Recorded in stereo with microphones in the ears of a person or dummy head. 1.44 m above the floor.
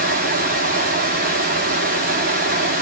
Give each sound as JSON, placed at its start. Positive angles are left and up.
{"t": 0.0, "sound": "running water", "side_deg": -40, "distance_m": 1.1}